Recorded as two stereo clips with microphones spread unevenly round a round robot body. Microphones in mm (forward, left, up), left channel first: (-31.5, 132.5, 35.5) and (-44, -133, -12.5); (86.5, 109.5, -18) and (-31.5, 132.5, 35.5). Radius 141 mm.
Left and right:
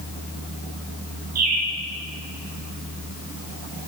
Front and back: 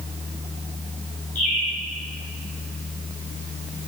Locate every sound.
1.4 s a bird: 55° right, 2.5 m